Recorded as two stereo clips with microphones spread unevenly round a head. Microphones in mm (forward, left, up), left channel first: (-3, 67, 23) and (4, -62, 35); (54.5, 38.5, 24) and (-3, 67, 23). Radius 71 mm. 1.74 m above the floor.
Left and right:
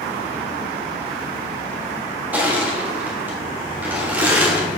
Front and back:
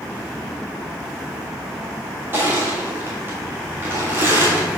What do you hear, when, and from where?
2.3 s crushing: 150° right, 1.3 m